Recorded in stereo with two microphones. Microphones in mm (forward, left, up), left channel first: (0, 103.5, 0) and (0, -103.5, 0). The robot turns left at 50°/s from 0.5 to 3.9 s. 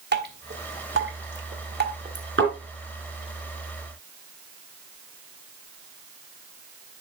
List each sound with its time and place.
0.1 s dripping: 55° right (ahead or behind), 1.4 m; by 2.2 s 35° right (ahead or behind), 1.4 m
2.4 s a thud: 70° right (ahead or behind), 4 m; by 2.5 s 80° right, 4 m